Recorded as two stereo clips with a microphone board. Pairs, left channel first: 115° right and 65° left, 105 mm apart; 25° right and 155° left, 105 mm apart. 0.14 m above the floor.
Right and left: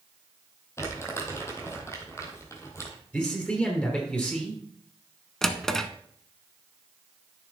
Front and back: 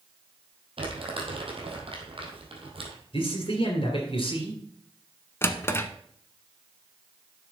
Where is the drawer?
35° right, 0.7 m.